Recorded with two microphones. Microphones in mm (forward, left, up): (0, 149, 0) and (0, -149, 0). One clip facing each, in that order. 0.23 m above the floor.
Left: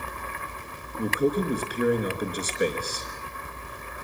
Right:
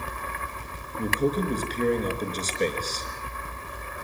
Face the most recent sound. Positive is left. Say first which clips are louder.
# left 1 dB
turn(degrees=10)  # may be behind; listen again after turning